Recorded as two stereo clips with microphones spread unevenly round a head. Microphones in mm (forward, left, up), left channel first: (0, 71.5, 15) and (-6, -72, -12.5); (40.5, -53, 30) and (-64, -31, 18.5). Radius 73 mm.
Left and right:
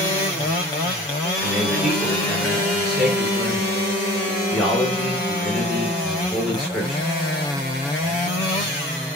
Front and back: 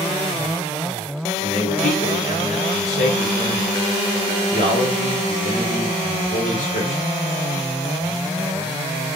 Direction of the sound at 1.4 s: 5° right.